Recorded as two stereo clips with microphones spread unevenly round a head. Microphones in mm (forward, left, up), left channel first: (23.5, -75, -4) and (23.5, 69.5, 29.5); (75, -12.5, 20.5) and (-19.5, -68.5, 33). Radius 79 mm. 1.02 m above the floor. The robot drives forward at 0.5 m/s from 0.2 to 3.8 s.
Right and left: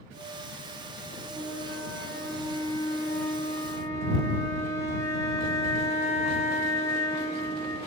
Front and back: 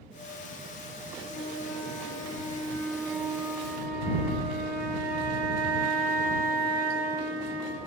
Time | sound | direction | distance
1.3 | a flute | 5° right | 1.0 m